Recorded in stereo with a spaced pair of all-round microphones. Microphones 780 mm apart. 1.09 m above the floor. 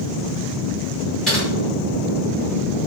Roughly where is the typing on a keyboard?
Centre.